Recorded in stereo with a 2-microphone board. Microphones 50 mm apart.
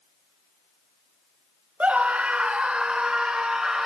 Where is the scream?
30° right (ahead or behind), 1.0 m; by 3.9 s 10° right (ahead or behind), 1.6 m.